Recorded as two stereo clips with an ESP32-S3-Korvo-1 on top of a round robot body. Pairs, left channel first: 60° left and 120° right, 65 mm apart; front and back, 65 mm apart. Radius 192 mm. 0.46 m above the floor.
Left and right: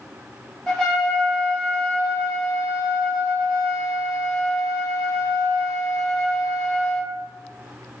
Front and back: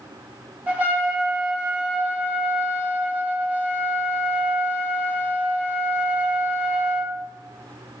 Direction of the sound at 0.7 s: 135° left.